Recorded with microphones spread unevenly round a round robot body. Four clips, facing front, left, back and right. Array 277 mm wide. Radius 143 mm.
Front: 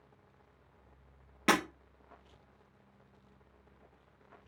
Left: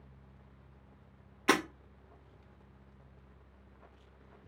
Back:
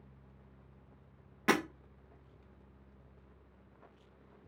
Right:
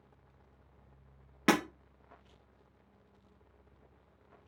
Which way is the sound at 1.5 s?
95° right.